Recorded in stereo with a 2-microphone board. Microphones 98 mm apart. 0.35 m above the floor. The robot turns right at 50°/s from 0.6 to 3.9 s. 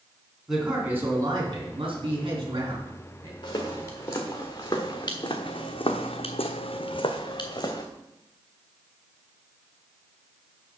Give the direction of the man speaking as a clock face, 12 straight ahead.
6 o'clock.